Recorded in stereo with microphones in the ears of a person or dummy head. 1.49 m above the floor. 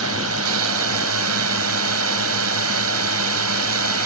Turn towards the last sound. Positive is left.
turn(degrees=-80)